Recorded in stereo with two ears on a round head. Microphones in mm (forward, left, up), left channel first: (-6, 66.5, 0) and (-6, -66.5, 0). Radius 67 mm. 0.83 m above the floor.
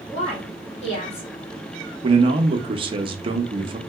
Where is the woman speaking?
40° left (ahead or behind), 1.5 m.